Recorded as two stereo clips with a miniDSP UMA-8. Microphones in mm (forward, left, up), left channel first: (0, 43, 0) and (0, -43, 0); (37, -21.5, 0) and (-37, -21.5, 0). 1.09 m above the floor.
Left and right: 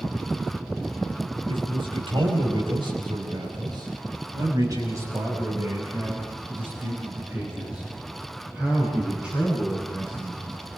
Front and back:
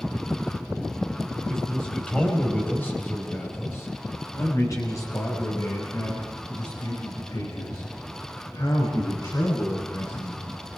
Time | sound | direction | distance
1.5 | a man speaking | 85° right | 5.5 m